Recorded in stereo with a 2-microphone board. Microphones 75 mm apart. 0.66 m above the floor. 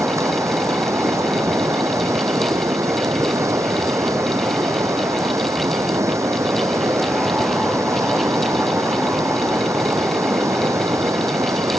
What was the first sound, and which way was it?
Running water, 40° right (ahead or behind).